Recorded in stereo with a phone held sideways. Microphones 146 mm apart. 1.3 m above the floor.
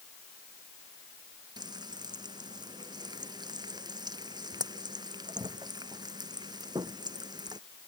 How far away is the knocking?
I don't hear knocking.